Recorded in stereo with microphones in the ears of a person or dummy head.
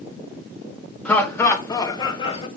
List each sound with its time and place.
1.1 s laughter: 10° left (ahead or behind), 1.9 m; by 2.5 s 35° left (ahead or behind), 1.7 m